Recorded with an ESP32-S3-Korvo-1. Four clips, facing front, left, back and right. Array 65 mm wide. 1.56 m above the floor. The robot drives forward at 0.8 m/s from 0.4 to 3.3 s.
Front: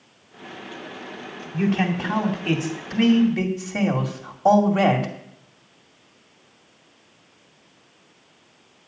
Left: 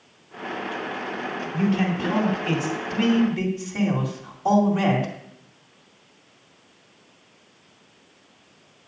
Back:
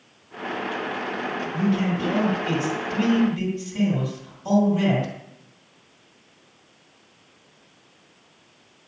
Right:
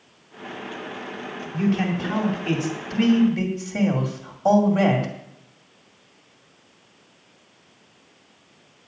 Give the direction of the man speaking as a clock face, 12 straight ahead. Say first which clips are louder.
Right 1 dB, front 2 dB; 12 o'clock.